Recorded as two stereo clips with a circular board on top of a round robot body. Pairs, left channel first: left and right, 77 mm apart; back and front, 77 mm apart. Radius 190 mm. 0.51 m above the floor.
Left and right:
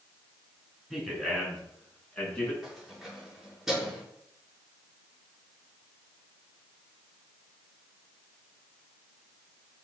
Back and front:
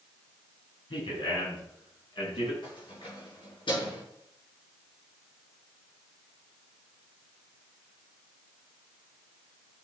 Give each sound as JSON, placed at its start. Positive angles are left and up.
{"t": 0.9, "sound": "a man speaking", "azimuth_deg": -175, "distance_m": 6.5}
{"t": 2.6, "sound": "keys jangling", "azimuth_deg": -175, "distance_m": 6.0}